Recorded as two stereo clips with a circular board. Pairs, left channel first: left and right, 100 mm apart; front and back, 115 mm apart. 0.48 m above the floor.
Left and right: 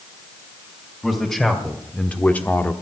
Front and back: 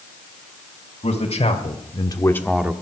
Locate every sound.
1.0 s a man speaking: 5° left, 2.5 m; by 2.7 s 130° left, 1.0 m